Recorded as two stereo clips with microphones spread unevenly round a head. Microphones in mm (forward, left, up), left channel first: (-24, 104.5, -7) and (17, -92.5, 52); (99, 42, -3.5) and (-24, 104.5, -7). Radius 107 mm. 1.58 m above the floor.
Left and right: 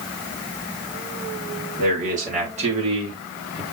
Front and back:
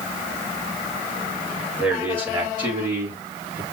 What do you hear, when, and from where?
1.8 s a man speaking: 125° right, 4 m; by 3.6 s 155° right, 2.5 m